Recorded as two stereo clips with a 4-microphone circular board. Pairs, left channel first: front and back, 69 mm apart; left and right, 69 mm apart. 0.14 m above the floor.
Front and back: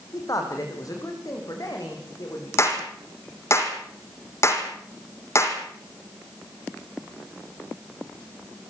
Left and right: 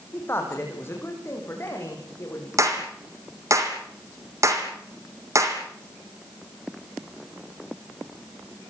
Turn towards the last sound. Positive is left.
turn(degrees=-50)